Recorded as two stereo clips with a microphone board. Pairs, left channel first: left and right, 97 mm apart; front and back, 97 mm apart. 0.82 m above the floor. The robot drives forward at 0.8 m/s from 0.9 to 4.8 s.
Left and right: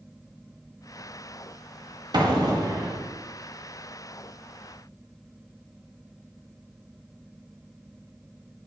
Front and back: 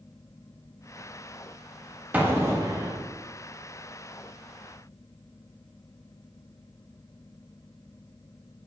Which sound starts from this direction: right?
An explosion, at 2.1 s.